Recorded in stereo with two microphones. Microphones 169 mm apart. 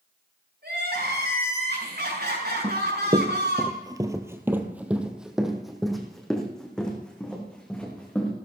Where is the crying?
80° right, 5.5 m.